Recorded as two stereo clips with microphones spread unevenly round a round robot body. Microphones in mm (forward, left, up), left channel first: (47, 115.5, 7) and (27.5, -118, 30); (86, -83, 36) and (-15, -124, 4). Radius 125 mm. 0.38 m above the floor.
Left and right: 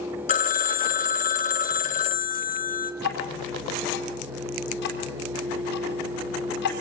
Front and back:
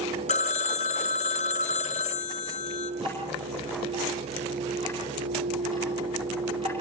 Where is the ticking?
135° left, 4 m.